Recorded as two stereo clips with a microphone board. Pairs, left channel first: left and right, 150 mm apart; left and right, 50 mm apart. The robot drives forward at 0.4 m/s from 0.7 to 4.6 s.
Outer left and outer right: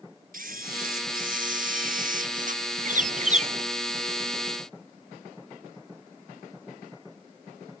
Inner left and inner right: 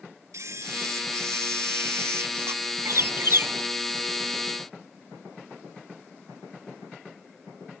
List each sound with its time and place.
0.3 s a camera shutter: 70° right (ahead or behind); by 2.6 s 60° right (ahead or behind)
2.9 s a bird: 65° right (ahead or behind); by 3.6 s 50° right (ahead or behind)